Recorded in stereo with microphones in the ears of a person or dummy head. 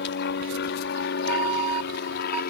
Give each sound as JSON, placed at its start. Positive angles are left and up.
{"t": 0.0, "sound": "an aircraft", "side_deg": 55}
{"t": 1.3, "sound": "an alarm", "side_deg": -35}